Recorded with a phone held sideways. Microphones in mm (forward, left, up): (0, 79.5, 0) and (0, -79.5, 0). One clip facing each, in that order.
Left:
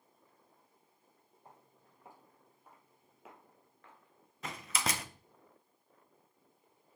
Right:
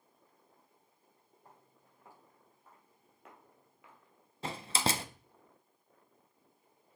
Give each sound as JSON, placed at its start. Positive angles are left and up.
{"t": 1.4, "sound": "footsteps", "side_deg": 20, "distance_m": 3.5}
{"t": 4.4, "sound": "a door slam", "side_deg": -30, "distance_m": 0.5}